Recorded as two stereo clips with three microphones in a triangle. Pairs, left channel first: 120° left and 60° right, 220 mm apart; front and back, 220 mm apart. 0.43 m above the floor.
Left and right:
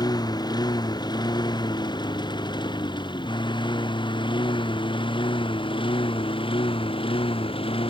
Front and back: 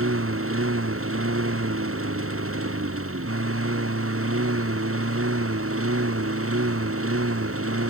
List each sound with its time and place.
0.0 s a lawn mower: 170° right; by 7.9 s 175° right